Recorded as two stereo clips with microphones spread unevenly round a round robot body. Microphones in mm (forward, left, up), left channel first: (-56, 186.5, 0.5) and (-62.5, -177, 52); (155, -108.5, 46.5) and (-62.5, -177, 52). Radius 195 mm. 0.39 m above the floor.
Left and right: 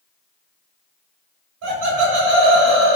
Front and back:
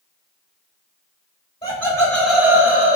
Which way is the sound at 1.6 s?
45° right.